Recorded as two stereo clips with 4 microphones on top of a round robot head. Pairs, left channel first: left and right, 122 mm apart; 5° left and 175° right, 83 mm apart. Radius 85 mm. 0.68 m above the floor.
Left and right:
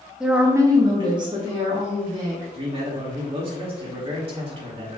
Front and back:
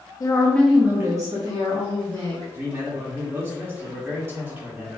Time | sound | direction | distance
0.2 | a woman speaking | 5° right | 0.9 m
2.5 | a man speaking | 115° right | 1.7 m